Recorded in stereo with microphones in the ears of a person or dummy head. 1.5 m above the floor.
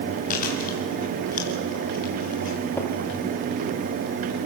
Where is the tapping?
15° left (ahead or behind), 2.5 m.